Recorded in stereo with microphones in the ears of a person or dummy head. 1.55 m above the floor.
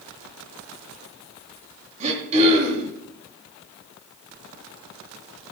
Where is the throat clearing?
35° right (ahead or behind), 3 m.